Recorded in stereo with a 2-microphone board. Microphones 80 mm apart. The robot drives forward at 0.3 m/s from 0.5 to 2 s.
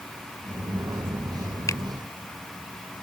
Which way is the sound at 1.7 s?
50° left (ahead or behind).